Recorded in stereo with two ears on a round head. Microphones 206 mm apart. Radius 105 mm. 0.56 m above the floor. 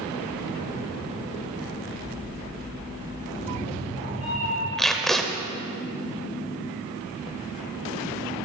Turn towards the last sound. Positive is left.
turn(degrees=0)  # may be behind; listen again after turning